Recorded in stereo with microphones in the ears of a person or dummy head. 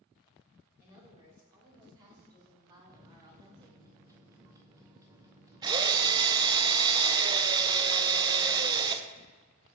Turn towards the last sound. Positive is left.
turn(degrees=-20)  # may be behind; listen again after turning